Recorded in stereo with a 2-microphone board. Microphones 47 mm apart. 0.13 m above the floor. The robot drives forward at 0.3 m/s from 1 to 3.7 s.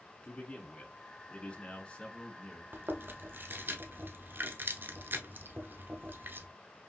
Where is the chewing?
50° right (ahead or behind), 0.8 m; by 6.5 s 45° right (ahead or behind), 0.8 m.